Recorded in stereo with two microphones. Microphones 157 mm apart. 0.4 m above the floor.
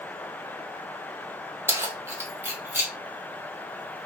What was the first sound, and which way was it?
Keys jangling, 15° right (ahead or behind).